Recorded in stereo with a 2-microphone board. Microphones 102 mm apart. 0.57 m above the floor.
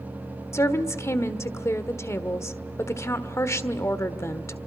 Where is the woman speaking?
25° left (ahead or behind), 1.3 m.